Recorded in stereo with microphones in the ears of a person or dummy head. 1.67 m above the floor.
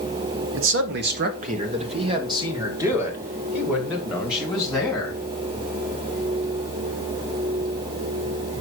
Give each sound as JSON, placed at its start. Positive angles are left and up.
{"t": 0.5, "sound": "a man speaking", "side_deg": -70, "distance_m": 1.3}